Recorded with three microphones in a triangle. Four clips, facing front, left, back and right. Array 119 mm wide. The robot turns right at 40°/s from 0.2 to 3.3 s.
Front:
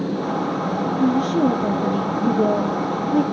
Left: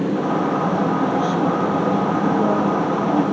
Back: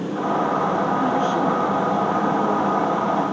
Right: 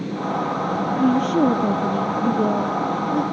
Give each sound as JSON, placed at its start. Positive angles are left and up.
{"t": 1.0, "sound": "a woman speaking", "azimuth_deg": -75, "distance_m": 3.5}